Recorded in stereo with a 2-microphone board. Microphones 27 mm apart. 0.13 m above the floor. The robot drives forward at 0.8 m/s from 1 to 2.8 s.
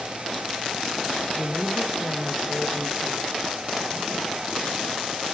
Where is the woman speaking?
5° left (ahead or behind), 1.8 m.